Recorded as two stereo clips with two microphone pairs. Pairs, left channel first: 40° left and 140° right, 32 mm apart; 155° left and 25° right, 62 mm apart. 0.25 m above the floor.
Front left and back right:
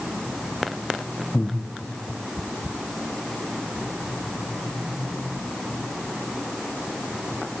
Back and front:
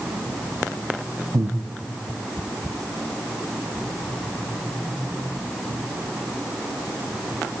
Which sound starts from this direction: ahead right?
Breathing, at 1.3 s.